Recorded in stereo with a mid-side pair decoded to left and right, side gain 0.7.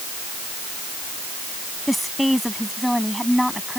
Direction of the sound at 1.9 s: Straight ahead.